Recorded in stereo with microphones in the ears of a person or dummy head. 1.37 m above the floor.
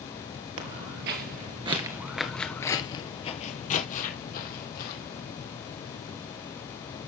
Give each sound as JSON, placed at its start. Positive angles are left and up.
{"t": 0.6, "sound": "footsteps", "side_deg": -50, "distance_m": 2.0}